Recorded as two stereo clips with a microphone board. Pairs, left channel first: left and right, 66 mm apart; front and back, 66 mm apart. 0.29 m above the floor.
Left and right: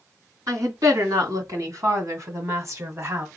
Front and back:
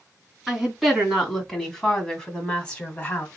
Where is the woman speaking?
95° right, 2.5 m; by 3.3 s 60° right, 2.0 m.